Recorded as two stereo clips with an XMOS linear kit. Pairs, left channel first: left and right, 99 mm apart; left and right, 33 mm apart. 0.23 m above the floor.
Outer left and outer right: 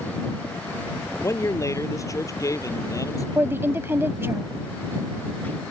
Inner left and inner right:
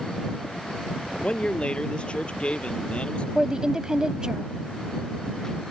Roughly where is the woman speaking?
Right.